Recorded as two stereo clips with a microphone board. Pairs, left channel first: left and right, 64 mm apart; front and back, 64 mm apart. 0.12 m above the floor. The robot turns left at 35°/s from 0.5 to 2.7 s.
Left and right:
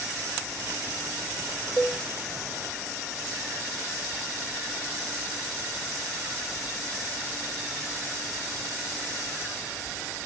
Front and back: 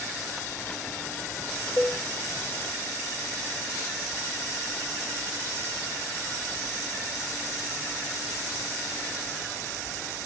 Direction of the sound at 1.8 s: 20° left.